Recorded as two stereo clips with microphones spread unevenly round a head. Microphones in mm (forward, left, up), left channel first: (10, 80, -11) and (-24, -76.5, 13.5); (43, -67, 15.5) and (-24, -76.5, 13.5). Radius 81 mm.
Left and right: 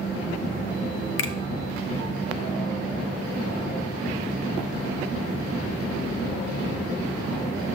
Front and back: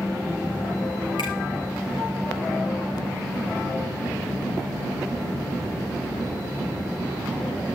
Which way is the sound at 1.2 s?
60° left.